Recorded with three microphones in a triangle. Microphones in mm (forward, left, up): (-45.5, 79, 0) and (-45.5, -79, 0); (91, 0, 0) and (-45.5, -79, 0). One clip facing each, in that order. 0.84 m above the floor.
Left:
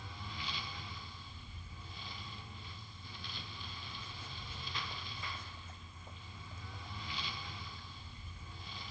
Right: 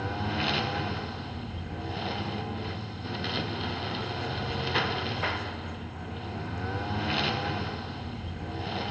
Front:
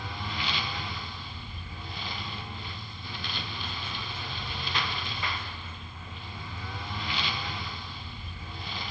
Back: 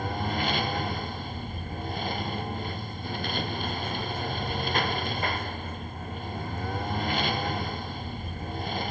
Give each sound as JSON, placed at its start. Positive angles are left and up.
{"t": 0.0, "sound": "a lawn mower", "azimuth_deg": -110}